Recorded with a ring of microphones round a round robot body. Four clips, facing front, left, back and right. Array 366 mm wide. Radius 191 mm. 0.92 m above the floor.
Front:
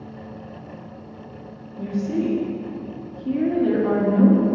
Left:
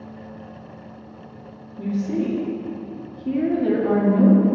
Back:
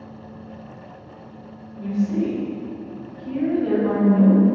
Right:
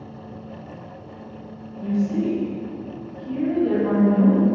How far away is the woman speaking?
About 1.8 m.